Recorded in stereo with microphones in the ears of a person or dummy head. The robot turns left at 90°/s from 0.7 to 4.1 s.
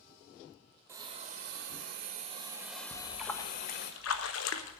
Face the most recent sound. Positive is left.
turn(degrees=100)